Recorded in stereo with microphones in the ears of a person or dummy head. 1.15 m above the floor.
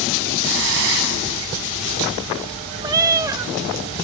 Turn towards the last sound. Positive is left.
turn(degrees=-25)  # may be behind; listen again after turning